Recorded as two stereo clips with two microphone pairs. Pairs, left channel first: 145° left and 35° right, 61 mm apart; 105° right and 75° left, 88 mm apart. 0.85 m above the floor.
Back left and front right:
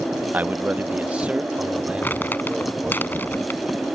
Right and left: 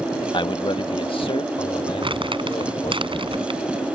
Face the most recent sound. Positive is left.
turn(degrees=90)